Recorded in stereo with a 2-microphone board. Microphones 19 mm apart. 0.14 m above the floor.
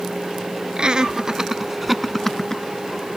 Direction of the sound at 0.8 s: 45° right (ahead or behind).